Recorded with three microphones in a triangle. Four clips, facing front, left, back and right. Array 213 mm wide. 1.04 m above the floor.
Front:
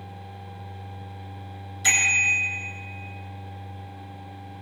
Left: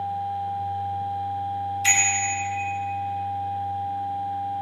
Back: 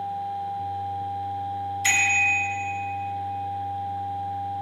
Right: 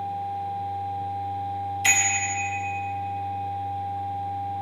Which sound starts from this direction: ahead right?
A bicycle bell, at 1.8 s.